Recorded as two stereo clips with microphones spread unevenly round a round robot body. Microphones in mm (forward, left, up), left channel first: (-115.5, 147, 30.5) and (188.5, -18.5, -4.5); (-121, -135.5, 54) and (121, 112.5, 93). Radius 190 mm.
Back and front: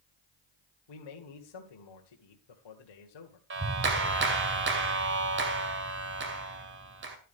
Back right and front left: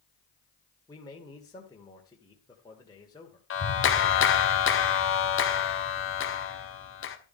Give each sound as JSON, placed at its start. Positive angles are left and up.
{"t": 0.9, "sound": "a man speaking", "azimuth_deg": 150, "distance_m": 2.0}
{"t": 3.5, "sound": "a clap", "azimuth_deg": -85, "distance_m": 2.0}